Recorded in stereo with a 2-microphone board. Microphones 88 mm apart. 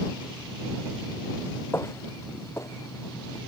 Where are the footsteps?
30° left (ahead or behind); by 3.4 s 35° left (ahead or behind).